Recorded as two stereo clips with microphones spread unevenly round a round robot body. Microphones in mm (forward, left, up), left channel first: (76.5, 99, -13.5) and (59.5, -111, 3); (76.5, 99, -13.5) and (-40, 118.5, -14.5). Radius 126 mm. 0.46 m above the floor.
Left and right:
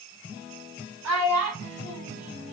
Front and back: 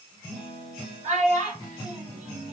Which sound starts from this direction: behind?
A child speaking, at 1.0 s.